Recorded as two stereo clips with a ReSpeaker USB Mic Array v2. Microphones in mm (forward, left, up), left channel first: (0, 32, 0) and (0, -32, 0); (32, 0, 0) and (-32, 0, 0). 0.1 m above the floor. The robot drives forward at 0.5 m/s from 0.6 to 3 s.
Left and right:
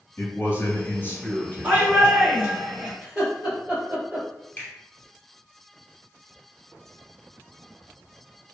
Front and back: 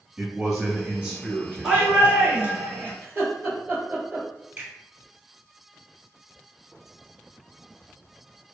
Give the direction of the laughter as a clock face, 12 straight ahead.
5 o'clock.